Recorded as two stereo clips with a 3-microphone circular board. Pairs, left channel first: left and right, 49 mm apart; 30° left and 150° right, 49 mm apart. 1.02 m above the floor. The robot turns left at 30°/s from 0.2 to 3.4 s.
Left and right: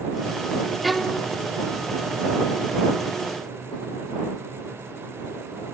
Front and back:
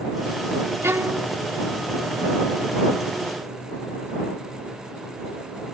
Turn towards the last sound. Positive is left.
turn(degrees=105)